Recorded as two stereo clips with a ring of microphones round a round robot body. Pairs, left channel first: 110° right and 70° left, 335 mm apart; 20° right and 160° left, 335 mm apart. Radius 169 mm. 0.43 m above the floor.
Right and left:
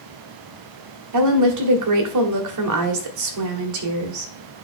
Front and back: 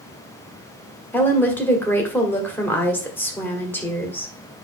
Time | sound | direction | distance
1.1 | a woman speaking | 60° left | 1.8 m